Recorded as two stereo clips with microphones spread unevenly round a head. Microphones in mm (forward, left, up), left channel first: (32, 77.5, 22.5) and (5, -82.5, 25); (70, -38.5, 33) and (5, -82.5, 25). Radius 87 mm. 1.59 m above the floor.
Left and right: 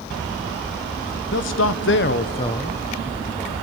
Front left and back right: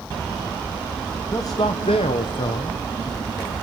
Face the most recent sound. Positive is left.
turn(degrees=-15)